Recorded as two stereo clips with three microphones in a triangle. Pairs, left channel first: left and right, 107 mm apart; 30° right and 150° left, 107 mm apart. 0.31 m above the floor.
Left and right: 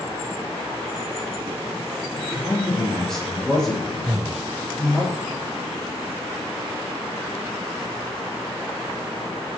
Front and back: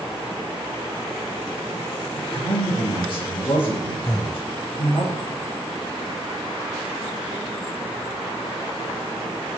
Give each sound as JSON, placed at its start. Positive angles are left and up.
{"t": 2.1, "sound": "a man speaking", "azimuth_deg": 5, "distance_m": 8.5}
{"t": 4.0, "sound": "breathing", "azimuth_deg": -60, "distance_m": 0.5}